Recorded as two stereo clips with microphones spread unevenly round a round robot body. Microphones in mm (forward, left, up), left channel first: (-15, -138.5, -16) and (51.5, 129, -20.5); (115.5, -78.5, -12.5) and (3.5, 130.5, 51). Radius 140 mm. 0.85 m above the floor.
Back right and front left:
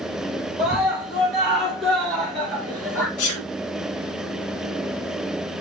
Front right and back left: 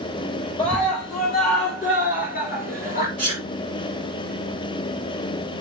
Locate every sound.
0.6 s a scream: 10° right, 4 m; by 3.1 s 25° right, 2.5 m
3.2 s a sneeze: 130° right, 2.5 m